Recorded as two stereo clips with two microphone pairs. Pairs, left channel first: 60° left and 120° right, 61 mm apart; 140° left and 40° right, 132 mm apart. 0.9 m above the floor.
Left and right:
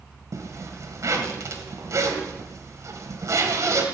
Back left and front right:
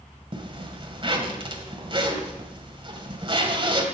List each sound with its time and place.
0.3 s a zipper: 90° right, 1.5 m